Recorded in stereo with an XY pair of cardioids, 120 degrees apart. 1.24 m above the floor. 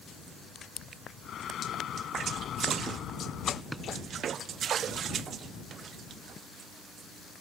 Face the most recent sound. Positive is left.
turn(degrees=-10)